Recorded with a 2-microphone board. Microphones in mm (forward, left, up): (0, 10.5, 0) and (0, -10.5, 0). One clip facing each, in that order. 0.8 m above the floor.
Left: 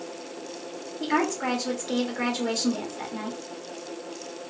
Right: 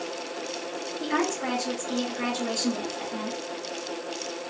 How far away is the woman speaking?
About 1.5 m.